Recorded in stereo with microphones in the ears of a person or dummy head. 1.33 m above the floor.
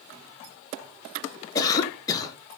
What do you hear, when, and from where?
1.6 s a cough: 25° left (ahead or behind), 1.0 m